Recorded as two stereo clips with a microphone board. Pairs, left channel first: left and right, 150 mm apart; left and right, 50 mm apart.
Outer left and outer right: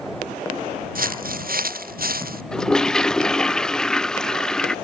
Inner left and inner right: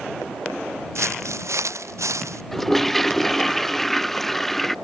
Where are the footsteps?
70° right (ahead or behind); by 2.4 s 80° right.